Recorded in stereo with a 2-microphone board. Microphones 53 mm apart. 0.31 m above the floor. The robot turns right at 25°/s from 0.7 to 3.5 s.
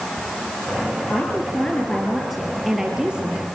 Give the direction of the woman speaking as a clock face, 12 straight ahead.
7 o'clock.